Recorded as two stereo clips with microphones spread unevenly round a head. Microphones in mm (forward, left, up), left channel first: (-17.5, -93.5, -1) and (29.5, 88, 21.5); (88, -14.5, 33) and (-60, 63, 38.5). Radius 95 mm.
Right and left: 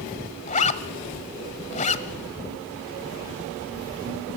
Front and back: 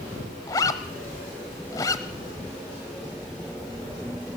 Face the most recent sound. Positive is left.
turn(degrees=-85)